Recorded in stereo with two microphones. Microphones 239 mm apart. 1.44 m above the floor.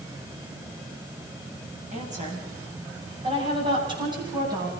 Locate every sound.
1.9 s a woman speaking: 30° right (ahead or behind), 8 m; by 4.7 s 15° right (ahead or behind), 10.5 m